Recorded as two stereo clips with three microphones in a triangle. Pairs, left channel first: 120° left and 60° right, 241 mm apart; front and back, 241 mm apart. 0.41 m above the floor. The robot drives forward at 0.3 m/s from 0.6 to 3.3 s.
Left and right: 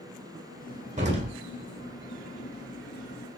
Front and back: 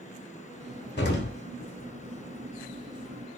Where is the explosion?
15° right, 1.2 m.